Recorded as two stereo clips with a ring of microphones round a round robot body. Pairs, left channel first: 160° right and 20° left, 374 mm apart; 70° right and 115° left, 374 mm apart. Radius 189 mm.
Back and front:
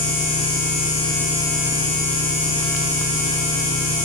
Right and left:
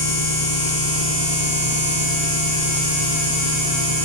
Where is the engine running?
50° right, 5 m.